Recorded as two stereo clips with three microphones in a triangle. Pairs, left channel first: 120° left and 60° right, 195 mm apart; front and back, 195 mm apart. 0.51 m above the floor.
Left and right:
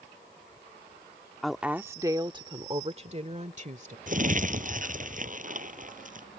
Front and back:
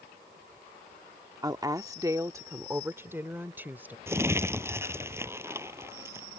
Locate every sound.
1.4 s a woman speaking: 155° right; by 4.0 s 100° right
4.1 s crumpling: 105° right